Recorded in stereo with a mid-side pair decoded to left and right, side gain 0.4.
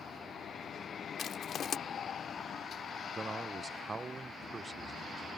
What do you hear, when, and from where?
1.2 s crushing: 60° left
3.1 s a man speaking: 35° right